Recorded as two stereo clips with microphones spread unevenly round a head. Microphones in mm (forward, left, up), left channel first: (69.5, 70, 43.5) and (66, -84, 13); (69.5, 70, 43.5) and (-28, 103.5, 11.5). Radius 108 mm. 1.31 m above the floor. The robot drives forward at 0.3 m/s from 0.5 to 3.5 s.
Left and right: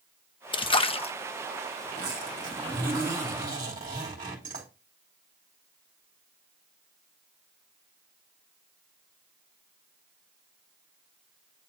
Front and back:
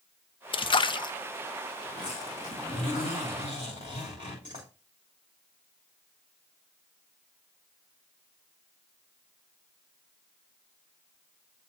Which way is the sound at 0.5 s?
25° left.